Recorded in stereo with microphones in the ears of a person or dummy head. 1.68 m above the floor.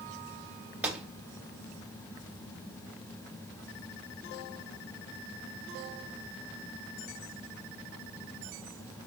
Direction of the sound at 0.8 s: 10° right (ahead or behind).